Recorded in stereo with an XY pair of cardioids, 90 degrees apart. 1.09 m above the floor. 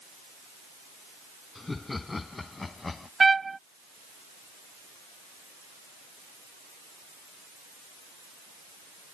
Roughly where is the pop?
I don't hear a pop.